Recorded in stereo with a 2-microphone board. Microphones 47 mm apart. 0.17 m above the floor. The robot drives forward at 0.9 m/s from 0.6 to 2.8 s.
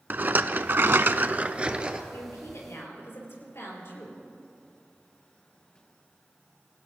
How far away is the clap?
I don't hear a clap.